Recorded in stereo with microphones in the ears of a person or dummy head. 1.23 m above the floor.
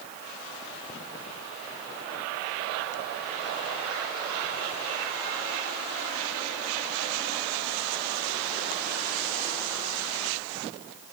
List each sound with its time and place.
Only background noise.